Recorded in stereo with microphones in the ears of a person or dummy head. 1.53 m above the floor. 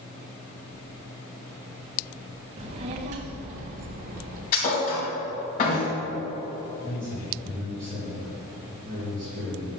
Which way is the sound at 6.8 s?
35° right (ahead or behind).